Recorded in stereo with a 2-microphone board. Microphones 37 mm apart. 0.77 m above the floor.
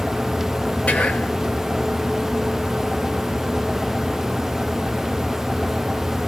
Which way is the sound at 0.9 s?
35° left (ahead or behind).